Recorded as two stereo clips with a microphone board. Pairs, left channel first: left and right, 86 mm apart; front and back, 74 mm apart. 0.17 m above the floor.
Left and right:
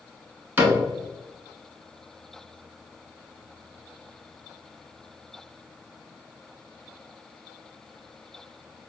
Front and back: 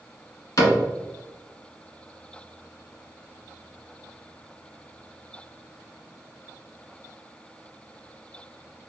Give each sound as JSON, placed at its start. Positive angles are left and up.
{"t": 0.6, "sound": "a cupboard door", "azimuth_deg": -25, "distance_m": 1.3}